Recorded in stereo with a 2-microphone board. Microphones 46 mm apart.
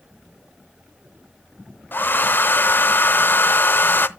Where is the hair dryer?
45° left (ahead or behind), 0.7 m.